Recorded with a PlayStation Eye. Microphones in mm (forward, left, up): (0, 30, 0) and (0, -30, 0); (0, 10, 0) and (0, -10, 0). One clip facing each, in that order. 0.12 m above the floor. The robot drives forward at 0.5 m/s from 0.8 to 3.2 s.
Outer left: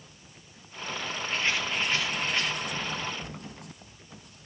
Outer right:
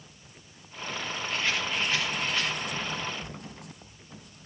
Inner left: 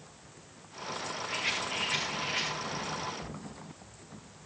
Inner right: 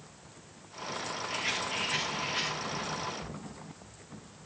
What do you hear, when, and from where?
1.3 s a rattle: 20° left (ahead or behind), 7.5 m; by 2.5 s 25° left (ahead or behind), 7 m